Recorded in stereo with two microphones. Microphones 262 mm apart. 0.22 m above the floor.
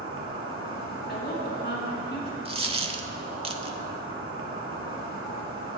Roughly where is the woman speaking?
Left.